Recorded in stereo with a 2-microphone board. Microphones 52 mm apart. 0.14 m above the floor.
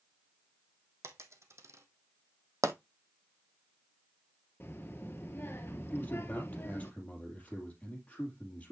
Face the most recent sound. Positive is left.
turn(degrees=25)  # may be behind; listen again after turning